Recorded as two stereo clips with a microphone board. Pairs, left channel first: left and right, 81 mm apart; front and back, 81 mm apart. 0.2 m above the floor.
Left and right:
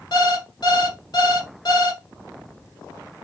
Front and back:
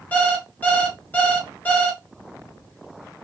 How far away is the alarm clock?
About 1.0 m.